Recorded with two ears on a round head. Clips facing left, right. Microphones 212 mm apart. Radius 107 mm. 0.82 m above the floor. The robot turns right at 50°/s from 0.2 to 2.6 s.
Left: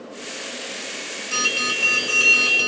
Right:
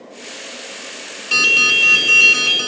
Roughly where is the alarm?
Right.